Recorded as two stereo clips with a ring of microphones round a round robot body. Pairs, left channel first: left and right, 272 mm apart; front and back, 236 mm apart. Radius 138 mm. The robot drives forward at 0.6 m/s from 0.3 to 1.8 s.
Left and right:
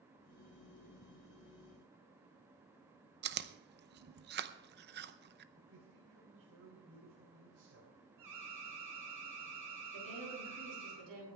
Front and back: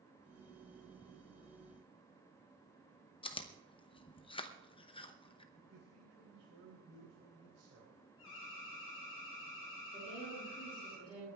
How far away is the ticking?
No ticking in this recording.